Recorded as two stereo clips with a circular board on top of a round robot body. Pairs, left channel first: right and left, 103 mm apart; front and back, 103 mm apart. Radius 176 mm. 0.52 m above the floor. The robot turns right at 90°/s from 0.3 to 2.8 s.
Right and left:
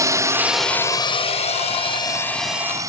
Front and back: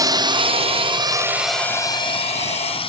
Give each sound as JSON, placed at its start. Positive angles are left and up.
{"t": 0.0, "sound": "a drone", "azimuth_deg": 140}